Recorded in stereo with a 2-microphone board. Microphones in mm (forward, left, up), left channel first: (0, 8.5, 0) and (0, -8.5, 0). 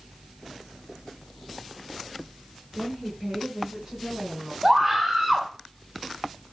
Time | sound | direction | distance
2.7 | a woman speaking | 30° right (ahead or behind) | 4.5 m
4.6 | a scream | 20° right (ahead or behind) | 1.2 m